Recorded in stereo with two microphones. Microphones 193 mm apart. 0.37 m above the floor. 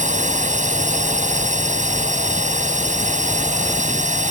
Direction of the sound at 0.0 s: 40° right (ahead or behind).